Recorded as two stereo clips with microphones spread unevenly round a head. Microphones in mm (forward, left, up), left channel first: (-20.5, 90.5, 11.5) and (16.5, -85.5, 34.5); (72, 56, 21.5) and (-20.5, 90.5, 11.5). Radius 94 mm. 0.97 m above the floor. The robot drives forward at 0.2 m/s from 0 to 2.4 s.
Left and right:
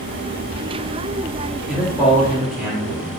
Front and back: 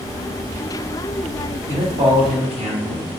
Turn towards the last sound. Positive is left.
turn(degrees=-165)